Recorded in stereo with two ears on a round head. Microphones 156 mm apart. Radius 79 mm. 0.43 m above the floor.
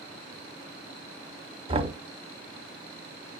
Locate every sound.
1.7 s knocking: 30° right (ahead or behind), 0.8 m